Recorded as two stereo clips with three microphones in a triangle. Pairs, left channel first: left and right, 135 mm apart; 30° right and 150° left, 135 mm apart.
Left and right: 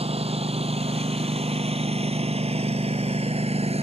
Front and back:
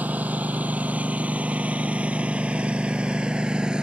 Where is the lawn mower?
130° right; by 3.8 s 125° right.